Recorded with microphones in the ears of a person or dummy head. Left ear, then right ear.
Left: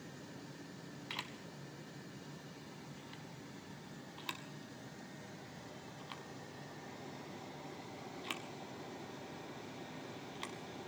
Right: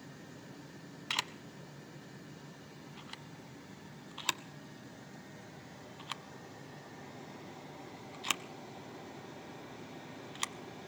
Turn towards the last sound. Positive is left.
turn(degrees=-40)  # may be behind; listen again after turning